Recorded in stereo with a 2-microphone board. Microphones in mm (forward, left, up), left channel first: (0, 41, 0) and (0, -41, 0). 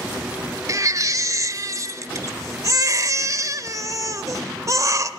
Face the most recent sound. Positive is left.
turn(degrees=-40)  # may be behind; listen again after turning